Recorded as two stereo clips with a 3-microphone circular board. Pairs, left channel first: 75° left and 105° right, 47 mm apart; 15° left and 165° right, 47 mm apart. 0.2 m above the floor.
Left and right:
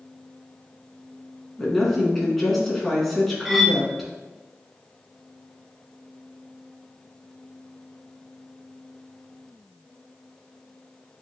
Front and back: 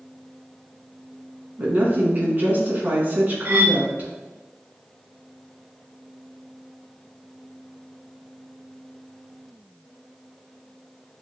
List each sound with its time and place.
1.6 s a woman speaking: 160° left, 2 m
3.5 s cutlery clinking: 170° left, 1.0 m